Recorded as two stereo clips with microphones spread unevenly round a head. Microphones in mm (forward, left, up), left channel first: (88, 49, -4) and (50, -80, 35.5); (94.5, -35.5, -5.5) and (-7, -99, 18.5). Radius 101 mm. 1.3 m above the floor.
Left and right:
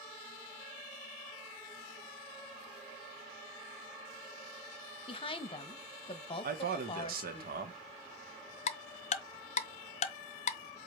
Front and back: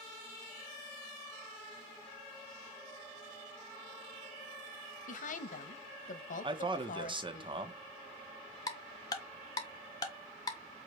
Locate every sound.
5.1 s a woman speaking: 20° left, 1.2 m
6.4 s a man speaking: 100° right, 1.2 m
8.7 s ticking: 95° left, 0.6 m